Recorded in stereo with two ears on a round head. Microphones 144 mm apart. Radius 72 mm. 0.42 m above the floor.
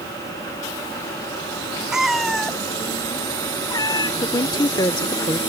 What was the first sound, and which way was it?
A cat meowing, 5° right (ahead or behind).